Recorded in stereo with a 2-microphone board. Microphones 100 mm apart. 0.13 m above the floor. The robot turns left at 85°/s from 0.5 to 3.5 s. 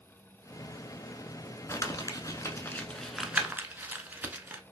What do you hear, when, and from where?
1.7 s crumpling: 30° left (ahead or behind), 0.6 m; by 4.6 s 15° right (ahead or behind), 0.6 m